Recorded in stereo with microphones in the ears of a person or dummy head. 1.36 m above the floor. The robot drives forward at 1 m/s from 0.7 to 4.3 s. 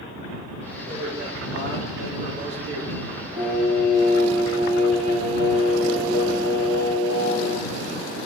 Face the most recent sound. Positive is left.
turn(degrees=-30)  # may be behind; listen again after turning